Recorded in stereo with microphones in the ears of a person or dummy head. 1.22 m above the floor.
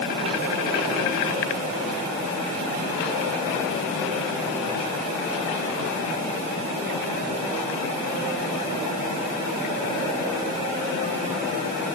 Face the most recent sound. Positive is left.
No sound to turn to.